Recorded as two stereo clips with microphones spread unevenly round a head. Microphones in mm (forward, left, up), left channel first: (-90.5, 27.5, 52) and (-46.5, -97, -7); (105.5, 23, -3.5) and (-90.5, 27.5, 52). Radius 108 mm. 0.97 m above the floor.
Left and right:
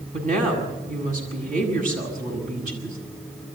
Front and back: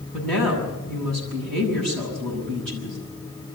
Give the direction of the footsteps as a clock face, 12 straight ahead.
I don't hear footsteps.